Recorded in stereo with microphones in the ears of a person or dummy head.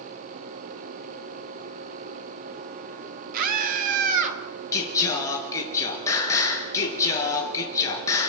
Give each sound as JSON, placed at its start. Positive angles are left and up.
{"t": 3.3, "sound": "a scream", "side_deg": -45, "distance_m": 2.5}
{"t": 4.7, "sound": "singing", "side_deg": 20, "distance_m": 4.0}